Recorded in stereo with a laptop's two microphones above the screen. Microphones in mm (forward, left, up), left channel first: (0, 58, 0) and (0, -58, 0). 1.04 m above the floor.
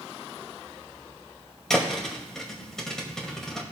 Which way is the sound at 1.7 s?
5° left (ahead or behind).